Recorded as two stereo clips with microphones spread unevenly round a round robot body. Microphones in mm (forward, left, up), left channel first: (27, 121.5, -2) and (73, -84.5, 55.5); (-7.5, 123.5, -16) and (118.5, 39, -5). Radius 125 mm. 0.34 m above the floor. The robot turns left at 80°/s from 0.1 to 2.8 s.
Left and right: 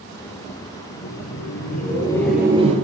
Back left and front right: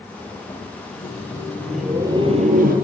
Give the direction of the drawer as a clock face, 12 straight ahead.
No drawer in this recording.